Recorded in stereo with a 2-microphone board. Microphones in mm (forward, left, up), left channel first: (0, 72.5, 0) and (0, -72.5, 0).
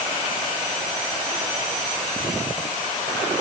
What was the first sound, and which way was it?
Only background noise.